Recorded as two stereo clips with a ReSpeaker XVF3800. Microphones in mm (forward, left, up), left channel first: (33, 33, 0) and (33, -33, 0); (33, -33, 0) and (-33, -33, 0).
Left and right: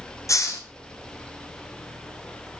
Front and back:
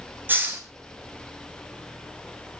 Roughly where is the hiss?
Behind left.